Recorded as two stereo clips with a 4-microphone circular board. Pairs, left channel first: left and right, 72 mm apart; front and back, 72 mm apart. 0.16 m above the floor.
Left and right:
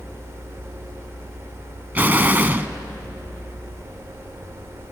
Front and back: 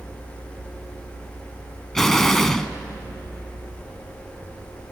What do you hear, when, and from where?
1.9 s an explosion: 80° right, 0.9 m